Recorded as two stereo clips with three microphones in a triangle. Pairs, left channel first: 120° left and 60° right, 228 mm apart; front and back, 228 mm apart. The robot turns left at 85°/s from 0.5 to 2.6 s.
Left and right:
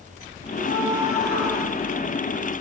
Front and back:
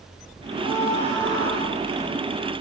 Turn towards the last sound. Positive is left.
turn(degrees=100)